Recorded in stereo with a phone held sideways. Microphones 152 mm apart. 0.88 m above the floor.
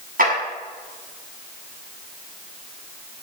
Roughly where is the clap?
Right.